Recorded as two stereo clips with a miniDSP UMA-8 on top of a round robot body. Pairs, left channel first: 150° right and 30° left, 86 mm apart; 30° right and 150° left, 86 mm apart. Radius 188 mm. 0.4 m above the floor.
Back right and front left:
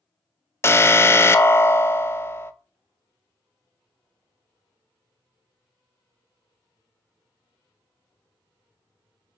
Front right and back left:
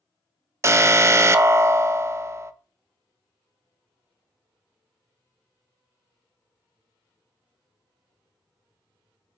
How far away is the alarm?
About 0.5 m.